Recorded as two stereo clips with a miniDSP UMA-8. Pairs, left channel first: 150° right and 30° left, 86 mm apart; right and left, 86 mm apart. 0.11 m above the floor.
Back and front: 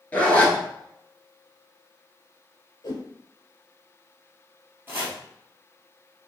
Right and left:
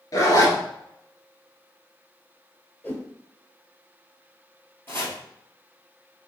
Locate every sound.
0.1 s a zipper: 90° right, 1.0 m
2.8 s a whoosh: 160° right, 0.9 m
4.9 s chopping: 30° right, 1.4 m